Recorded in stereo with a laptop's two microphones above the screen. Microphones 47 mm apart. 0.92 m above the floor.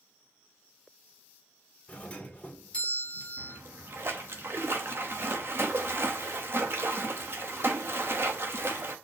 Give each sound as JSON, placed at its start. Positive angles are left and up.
{"t": 1.9, "sound": "a doorbell", "side_deg": 25, "distance_m": 1.5}
{"t": 3.4, "sound": "a splash", "side_deg": -55, "distance_m": 0.9}